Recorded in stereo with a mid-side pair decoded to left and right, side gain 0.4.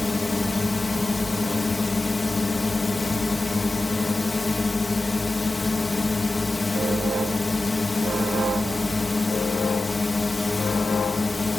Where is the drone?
25° left.